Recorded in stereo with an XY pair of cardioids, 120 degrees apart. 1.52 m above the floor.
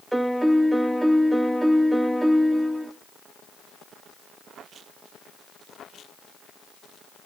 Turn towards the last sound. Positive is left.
turn(degrees=-10)